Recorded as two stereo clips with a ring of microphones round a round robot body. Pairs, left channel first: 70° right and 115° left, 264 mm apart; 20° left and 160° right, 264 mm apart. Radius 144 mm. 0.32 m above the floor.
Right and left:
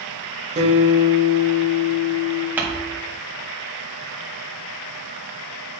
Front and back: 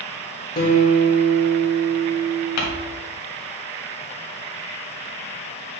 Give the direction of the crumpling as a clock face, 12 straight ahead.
11 o'clock.